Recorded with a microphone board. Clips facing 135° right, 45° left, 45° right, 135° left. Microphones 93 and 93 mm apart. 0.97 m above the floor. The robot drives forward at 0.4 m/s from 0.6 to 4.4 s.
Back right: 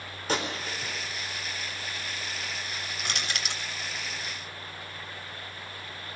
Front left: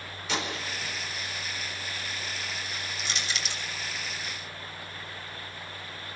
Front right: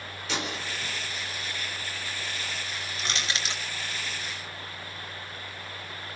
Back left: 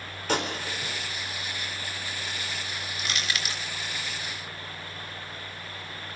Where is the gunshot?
175° left, 4.5 m.